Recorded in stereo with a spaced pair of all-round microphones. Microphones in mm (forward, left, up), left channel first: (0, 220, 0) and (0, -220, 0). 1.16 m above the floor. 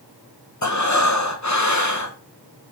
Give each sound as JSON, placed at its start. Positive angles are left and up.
{"t": 0.6, "sound": "breathing", "side_deg": 40, "distance_m": 0.8}